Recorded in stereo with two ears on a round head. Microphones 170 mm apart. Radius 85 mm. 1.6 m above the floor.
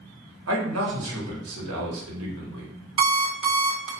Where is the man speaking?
80° right, 1.0 m.